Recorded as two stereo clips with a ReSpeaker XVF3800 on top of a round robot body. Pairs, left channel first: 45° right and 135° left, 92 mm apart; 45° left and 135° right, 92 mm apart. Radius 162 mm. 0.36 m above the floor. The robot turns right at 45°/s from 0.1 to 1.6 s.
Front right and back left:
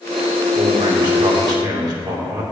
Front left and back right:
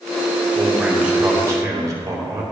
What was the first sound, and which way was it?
A man speaking, 130° left.